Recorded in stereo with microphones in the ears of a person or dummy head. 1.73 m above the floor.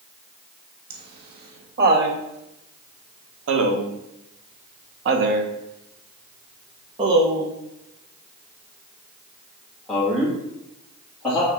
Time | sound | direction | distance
0.9 | laughter | 55° right (ahead or behind) | 2.5 m